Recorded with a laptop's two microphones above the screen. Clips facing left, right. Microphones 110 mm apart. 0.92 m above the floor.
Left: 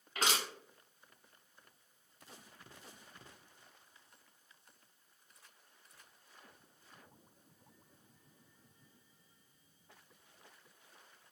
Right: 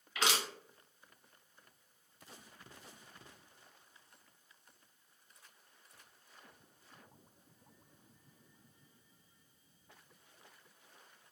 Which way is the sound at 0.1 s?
40° left (ahead or behind).